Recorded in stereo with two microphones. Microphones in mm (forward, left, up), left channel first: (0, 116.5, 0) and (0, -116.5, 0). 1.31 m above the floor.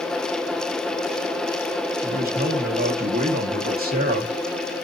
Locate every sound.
2.0 s a man speaking: 40° right (ahead or behind), 1.3 m